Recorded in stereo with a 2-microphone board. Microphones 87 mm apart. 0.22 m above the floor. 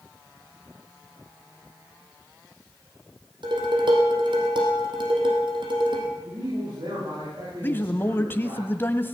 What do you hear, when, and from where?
3.4 s dishes clattering: 65° right (ahead or behind), 5 m
6.2 s a man speaking: 70° right (ahead or behind), 9.5 m
7.6 s a man speaking: 25° left (ahead or behind), 1.0 m